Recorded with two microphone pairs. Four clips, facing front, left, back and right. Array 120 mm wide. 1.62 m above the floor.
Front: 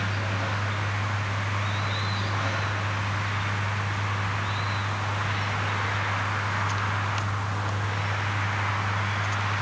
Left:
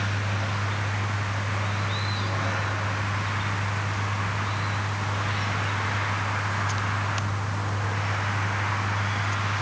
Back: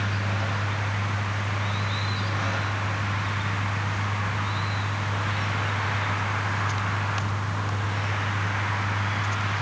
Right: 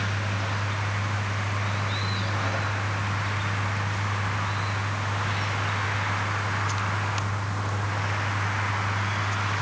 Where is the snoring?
I don't hear snoring.